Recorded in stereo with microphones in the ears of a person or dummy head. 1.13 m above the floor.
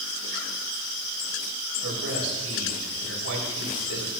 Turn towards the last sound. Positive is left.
turn(degrees=-85)